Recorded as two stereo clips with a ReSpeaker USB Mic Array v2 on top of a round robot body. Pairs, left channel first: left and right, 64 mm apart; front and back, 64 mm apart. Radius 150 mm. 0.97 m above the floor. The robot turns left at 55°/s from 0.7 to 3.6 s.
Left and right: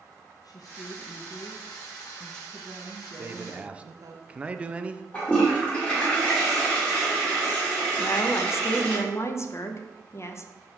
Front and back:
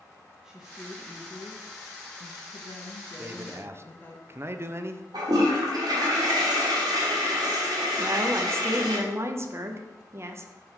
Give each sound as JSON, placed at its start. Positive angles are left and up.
{"t": 0.4, "sound": "a woman speaking", "azimuth_deg": 100, "distance_m": 0.6}
{"t": 3.2, "sound": "a man speaking", "azimuth_deg": -130, "distance_m": 0.6}
{"t": 5.1, "sound": "a toilet flushing", "azimuth_deg": 160, "distance_m": 1.4}
{"t": 8.0, "sound": "a woman speaking", "azimuth_deg": 130, "distance_m": 0.7}